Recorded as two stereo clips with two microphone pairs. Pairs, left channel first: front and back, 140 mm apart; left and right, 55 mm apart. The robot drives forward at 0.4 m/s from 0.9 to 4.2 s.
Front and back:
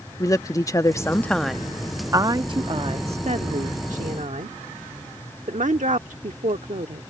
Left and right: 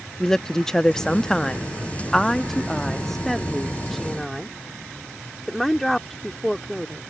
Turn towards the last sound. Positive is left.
turn(degrees=175)